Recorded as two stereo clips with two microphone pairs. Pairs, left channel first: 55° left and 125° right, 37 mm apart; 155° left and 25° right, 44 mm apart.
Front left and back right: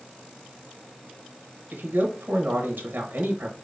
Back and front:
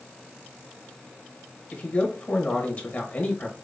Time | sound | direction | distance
1.7 | a man speaking | 155° right | 1.2 m